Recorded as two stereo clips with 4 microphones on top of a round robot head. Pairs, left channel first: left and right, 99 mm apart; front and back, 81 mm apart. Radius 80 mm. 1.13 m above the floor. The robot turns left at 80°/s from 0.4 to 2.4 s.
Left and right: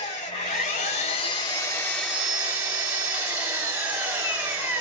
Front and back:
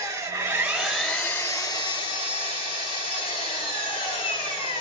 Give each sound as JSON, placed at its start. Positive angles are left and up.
{"t": 0.0, "sound": "an engine running", "azimuth_deg": 135, "distance_m": 1.4}